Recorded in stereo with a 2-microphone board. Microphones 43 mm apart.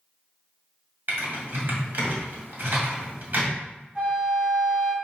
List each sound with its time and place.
1.1 s typing on a keyboard: 50° right (ahead or behind), 2 m
4.0 s a flute: 20° right (ahead or behind), 1.8 m